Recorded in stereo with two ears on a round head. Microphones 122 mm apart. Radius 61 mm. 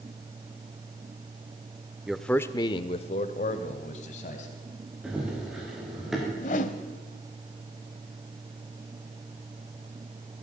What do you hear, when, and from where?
2.1 s a man speaking: 5° right (ahead or behind), 0.8 m; by 4.6 s 55° left (ahead or behind), 2.5 m
5.0 s running footsteps: 5° right (ahead or behind), 6.5 m
6.4 s a whoosh: 65° left (ahead or behind), 1.3 m